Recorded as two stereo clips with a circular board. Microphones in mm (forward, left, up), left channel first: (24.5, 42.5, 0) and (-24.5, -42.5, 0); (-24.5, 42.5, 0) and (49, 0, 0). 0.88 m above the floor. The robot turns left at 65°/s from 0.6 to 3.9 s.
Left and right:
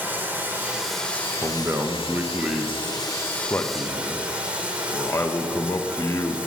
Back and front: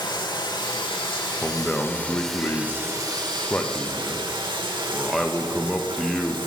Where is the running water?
170° left, 1.0 m; by 6.5 s 45° right, 1.0 m.